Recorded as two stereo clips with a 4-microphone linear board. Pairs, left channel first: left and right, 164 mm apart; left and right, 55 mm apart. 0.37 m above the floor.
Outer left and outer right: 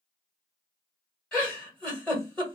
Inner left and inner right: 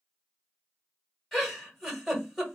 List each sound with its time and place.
1.3 s a giggle: 5° left (ahead or behind), 1.7 m